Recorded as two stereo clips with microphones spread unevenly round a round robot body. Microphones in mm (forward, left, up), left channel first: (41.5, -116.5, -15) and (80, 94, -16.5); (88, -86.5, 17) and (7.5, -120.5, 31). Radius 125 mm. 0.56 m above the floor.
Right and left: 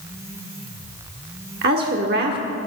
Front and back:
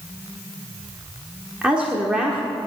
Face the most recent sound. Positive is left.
turn(degrees=115)